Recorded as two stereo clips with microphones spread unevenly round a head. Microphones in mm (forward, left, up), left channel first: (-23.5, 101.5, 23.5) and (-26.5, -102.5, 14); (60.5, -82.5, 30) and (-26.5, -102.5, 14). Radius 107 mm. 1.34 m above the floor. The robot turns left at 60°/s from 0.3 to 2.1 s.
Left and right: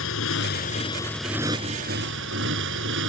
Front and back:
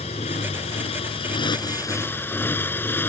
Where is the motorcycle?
55° left; by 3.1 s 55° right.